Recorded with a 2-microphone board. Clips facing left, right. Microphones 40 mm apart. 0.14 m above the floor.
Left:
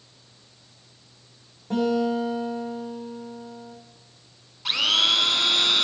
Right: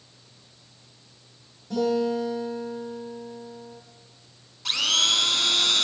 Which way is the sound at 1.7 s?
40° left (ahead or behind).